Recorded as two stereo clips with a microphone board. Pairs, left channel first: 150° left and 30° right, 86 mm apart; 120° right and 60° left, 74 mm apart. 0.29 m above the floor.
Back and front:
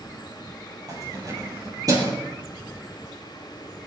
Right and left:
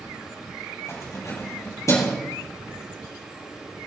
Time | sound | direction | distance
0.9 | keys jangling | 75° right | 6 m